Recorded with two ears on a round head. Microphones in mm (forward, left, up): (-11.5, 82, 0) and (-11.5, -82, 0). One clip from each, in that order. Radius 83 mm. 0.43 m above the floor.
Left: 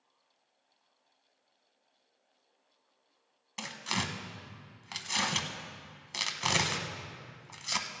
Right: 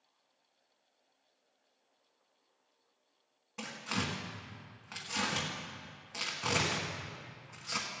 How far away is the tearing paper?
About 1.0 m.